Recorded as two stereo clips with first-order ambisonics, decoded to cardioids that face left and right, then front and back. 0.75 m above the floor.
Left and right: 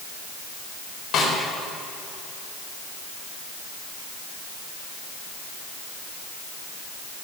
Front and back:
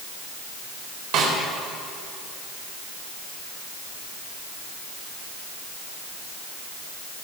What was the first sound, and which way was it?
A snare drum, 145° left.